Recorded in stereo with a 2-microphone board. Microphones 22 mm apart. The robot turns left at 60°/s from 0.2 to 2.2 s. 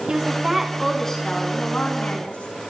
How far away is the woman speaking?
About 6 m.